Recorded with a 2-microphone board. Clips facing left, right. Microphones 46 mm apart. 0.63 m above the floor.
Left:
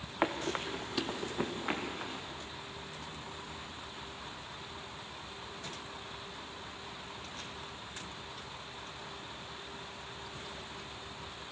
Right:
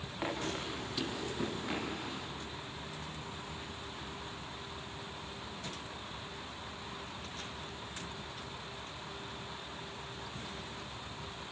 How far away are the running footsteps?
About 3.5 m.